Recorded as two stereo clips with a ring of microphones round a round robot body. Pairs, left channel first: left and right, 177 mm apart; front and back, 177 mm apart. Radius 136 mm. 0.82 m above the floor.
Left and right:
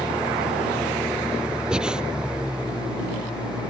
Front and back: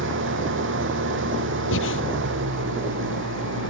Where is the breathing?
5° right.